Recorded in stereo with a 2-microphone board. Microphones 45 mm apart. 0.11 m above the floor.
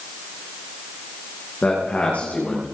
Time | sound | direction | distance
1.6 | a man speaking | 35° left (ahead or behind) | 5.5 m